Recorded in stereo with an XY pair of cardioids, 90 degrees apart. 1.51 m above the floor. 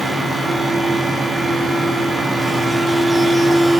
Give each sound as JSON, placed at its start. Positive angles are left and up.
{"t": 0.0, "sound": "a fan", "azimuth_deg": -15, "distance_m": 1.1}